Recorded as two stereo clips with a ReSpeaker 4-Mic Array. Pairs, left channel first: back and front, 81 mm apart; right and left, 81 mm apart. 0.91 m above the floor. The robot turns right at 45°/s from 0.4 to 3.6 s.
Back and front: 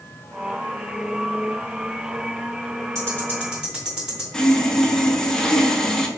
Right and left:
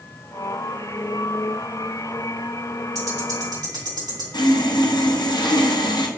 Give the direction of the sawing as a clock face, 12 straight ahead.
3 o'clock.